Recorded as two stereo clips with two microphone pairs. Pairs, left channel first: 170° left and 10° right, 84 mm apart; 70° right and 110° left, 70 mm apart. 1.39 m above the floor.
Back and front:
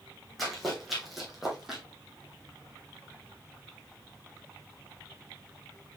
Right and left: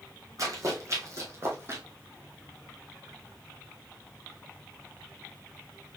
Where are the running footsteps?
80° left, 2.5 m; by 1.8 s 75° left, 2.0 m.